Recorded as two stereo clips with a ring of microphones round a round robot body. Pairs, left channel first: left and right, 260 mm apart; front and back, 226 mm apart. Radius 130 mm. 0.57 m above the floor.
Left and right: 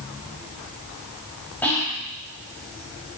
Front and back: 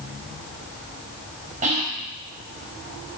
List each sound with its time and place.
1.6 s whispering: 170° left, 0.8 m